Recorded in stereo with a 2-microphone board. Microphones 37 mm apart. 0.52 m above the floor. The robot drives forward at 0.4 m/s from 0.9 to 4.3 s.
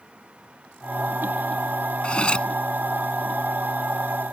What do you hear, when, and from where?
2.0 s cutlery clinking: 30° left (ahead or behind); by 2.5 s 25° left (ahead or behind)